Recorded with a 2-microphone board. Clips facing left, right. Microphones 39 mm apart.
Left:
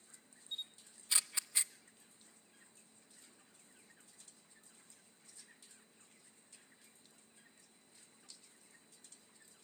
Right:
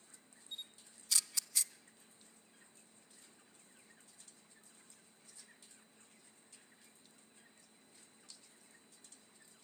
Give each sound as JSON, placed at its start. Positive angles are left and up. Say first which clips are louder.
{"t": 0.5, "sound": "a camera shutter", "louder": "left 3 dB", "side_deg": 25, "distance_m": 0.5}